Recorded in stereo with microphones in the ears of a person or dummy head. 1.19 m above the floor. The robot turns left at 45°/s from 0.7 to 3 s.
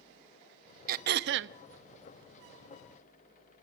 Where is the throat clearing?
60° right, 0.9 m; by 1.6 s 90° right, 0.9 m.